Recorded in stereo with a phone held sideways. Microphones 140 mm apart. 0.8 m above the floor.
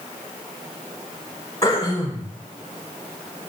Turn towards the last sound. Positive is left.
turn(degrees=25)  # may be behind; listen again after turning